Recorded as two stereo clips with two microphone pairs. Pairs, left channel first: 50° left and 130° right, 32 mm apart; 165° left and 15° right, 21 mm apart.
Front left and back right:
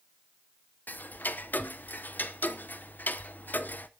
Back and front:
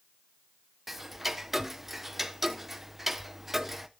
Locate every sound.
0.9 s ticking: 70° left, 0.7 m